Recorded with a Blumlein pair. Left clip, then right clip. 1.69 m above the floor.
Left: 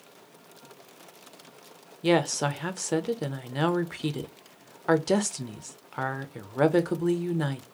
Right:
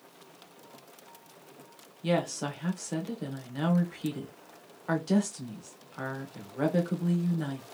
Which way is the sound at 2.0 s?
25° left.